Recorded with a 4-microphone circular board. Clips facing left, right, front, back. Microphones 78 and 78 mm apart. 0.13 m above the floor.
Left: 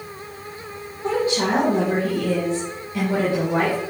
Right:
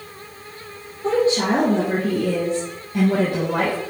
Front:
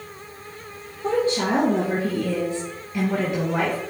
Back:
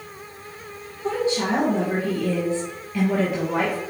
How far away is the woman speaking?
About 2.5 m.